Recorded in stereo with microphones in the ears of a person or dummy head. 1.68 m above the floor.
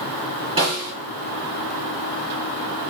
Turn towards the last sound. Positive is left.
turn(degrees=-30)  # may be behind; listen again after turning